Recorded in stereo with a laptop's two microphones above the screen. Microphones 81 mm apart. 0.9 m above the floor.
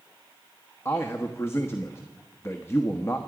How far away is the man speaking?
About 1.1 m.